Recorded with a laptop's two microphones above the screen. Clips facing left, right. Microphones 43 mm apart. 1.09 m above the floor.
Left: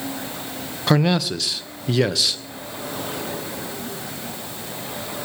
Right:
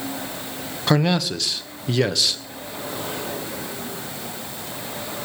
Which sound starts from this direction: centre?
A man speaking, at 0.9 s.